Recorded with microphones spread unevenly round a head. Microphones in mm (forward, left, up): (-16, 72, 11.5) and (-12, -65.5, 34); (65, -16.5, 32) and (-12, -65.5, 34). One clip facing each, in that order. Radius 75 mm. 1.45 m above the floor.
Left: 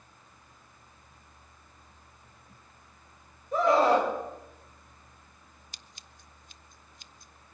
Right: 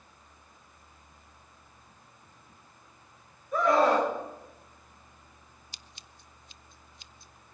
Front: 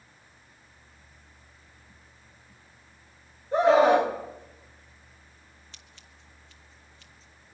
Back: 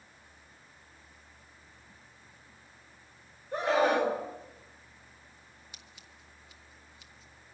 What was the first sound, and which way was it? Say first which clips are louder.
A scream: left 1 dB, front 8 dB; 25° left.